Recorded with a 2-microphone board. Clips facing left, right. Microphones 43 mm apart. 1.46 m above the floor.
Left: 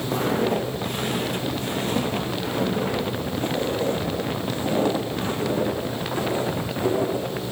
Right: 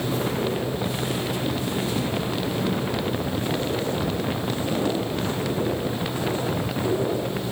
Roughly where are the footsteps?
Left.